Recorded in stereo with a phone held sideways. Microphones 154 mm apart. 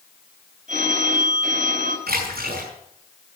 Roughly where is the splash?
Right.